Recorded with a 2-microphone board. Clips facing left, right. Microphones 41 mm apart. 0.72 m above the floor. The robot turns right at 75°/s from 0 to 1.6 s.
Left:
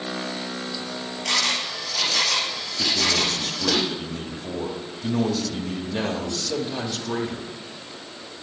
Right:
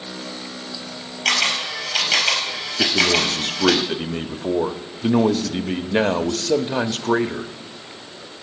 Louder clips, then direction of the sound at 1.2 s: Right 5 dB; 55° right (ahead or behind).